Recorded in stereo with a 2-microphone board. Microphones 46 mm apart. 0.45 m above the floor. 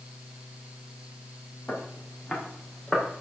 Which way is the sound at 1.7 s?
35° left (ahead or behind).